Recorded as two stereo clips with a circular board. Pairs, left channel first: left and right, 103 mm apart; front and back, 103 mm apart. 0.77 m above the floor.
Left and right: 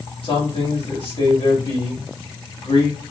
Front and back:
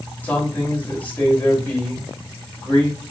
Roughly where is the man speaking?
Left.